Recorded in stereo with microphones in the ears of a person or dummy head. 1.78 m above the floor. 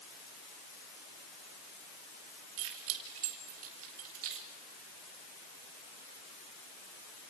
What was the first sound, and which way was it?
Keys jangling, 70° right (ahead or behind).